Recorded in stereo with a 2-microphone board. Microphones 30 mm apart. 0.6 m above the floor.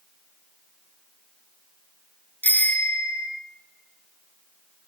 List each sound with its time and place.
2.4 s a bicycle bell: 65° left (ahead or behind), 3.5 m